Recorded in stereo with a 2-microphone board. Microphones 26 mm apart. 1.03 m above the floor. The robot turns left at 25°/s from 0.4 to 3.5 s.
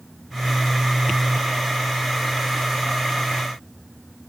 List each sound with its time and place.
Only background noise.